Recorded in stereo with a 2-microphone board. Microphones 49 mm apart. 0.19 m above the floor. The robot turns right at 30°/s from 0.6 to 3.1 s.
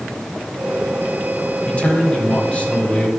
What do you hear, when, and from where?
1.7 s a man speaking: 25° left (ahead or behind), 1.4 m; by 3.1 s 20° left (ahead or behind), 1.4 m